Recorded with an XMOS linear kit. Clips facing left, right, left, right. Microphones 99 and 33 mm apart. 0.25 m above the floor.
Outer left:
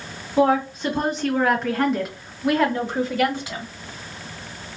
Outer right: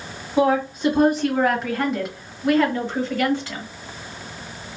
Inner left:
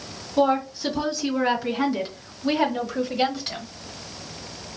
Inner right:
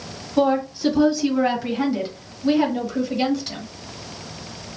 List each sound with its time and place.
0.4 s a woman speaking: 10° right (ahead or behind), 1.7 m; by 3.6 s 20° left (ahead or behind), 1.2 m